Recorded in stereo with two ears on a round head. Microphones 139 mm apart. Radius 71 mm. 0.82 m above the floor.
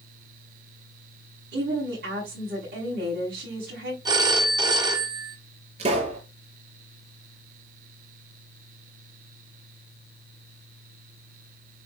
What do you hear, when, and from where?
1.5 s a woman speaking: 75° right (ahead or behind), 6.5 m
4.0 s a phone ringing: 25° right (ahead or behind), 1.2 m
5.8 s a pop: 45° right (ahead or behind), 5.5 m